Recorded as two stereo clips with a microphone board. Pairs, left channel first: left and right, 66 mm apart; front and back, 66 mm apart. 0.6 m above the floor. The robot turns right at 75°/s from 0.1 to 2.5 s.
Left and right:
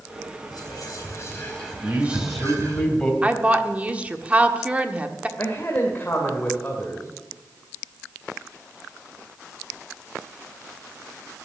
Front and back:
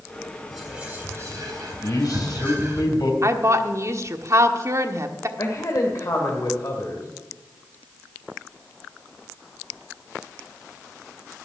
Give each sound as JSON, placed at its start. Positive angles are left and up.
{"t": 0.5, "sound": "whispering", "azimuth_deg": 90, "distance_m": 4.5}
{"t": 1.8, "sound": "a man speaking", "azimuth_deg": -35, "distance_m": 4.0}
{"t": 3.2, "sound": "a woman speaking", "azimuth_deg": -155, "distance_m": 1.3}
{"t": 5.4, "sound": "a man speaking", "azimuth_deg": 35, "distance_m": 2.0}